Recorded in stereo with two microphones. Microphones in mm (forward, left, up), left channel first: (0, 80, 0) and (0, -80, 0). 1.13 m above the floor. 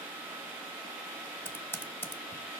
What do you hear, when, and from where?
1.4 s typing on a keyboard: 10° left (ahead or behind), 1.1 m